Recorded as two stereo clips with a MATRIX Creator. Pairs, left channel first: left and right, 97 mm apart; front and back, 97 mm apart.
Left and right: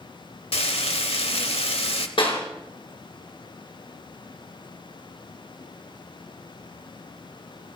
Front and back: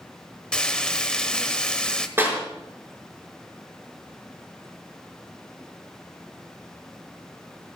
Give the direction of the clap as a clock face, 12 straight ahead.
8 o'clock.